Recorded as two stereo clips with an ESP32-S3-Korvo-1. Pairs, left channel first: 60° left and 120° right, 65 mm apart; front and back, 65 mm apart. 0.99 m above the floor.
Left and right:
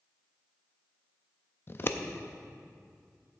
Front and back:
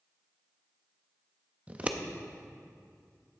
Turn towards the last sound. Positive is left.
turn(degrees=110)